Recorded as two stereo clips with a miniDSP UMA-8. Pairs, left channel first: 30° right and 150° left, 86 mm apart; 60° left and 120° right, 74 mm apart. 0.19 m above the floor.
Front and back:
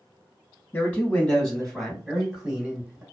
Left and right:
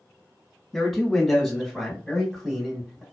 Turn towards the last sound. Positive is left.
turn(degrees=145)